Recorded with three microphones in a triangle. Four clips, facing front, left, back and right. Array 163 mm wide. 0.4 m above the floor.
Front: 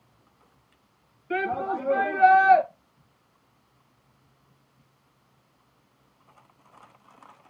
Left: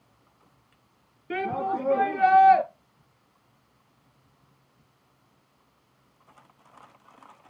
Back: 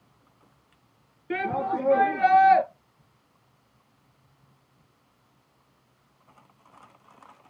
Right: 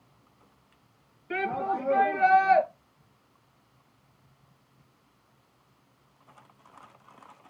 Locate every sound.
1.3 s a shout: 145° left, 6 m